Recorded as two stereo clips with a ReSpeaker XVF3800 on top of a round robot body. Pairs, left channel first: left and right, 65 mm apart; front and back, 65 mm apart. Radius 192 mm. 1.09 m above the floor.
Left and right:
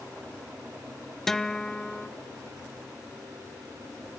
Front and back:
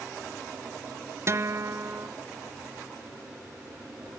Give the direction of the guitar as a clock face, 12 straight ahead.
6 o'clock.